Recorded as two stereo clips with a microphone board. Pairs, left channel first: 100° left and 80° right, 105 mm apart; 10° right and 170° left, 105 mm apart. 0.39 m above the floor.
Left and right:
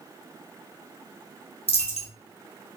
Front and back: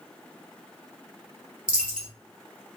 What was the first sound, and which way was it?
A dropped coin, 90° left.